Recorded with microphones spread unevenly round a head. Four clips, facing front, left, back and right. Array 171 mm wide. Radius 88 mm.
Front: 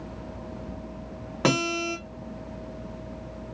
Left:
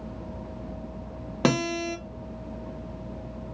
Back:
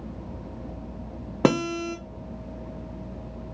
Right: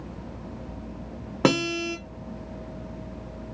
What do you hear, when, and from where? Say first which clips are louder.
1.4 s a guitar: right 2 dB, back 2 dB; 160° right, 0.7 m